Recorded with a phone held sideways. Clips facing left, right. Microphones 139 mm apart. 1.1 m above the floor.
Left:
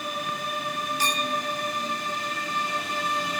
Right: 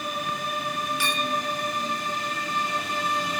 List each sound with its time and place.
1.0 s a clink: 40° left (ahead or behind)